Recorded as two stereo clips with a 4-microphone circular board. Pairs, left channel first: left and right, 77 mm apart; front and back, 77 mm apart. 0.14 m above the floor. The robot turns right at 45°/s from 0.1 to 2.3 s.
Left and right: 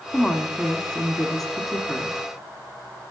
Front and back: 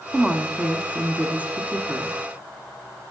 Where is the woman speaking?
110° left, 1.0 m; by 2.2 s 155° right, 1.0 m.